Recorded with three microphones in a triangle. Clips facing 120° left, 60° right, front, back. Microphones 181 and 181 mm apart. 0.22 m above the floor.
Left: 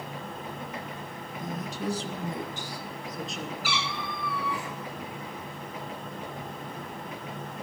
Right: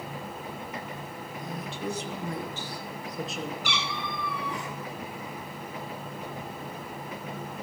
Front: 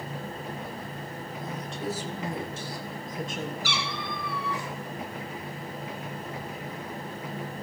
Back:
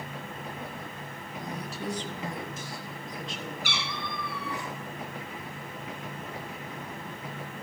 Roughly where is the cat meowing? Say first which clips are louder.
Even, front 3 dB; behind right.